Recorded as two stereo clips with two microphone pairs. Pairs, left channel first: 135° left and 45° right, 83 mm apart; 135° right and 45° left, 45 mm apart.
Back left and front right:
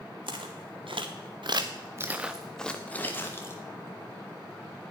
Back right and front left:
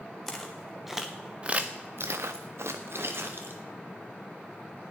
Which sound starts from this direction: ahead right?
Footsteps, at 0.3 s.